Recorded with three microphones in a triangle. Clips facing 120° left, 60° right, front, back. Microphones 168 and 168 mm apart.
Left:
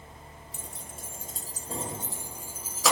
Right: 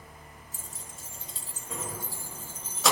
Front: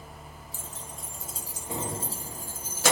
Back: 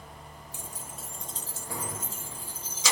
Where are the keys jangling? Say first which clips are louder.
Left 5 dB, even; 105° left, 1.1 m; by 2.9 s 30° left, 1.2 m.